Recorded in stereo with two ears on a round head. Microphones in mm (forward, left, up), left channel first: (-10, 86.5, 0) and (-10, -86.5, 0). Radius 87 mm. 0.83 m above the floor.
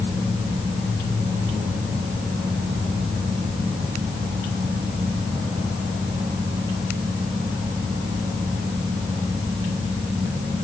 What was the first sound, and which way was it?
Only background noise.